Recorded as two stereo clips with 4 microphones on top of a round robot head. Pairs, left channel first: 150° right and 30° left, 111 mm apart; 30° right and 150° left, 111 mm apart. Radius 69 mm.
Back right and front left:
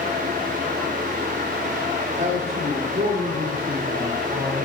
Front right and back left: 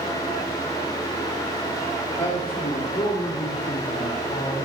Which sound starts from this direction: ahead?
A man speaking, at 2.2 s.